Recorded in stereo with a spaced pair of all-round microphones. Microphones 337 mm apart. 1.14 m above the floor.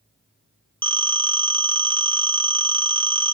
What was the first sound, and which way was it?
A phone ringing, 15° right (ahead or behind).